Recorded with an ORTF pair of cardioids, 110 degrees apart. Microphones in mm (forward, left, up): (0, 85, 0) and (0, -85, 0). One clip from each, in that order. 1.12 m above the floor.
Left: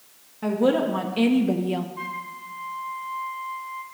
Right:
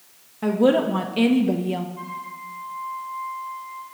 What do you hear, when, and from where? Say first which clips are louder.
0.4 s a woman speaking: right 3 dB; 20° right, 2 m; by 1.9 s 10° left, 1.1 m
2.0 s a flute: left 1 dB; 40° left, 4.5 m